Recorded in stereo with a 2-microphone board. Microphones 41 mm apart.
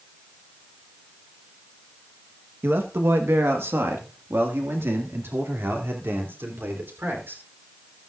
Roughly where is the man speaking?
Right.